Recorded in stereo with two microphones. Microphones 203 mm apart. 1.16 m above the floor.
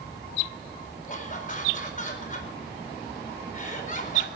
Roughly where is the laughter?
Left.